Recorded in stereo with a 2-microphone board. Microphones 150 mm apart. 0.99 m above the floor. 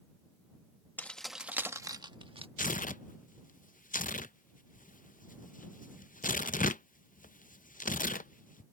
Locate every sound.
1.0 s keys jangling: 10° left (ahead or behind); by 2.5 s 40° right (ahead or behind)
2.6 s tearing paper: 65° left (ahead or behind)